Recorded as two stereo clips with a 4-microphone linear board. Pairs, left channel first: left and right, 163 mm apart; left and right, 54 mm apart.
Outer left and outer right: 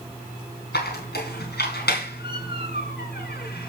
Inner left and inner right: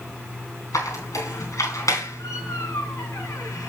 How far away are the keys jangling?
No keys jangling in this recording.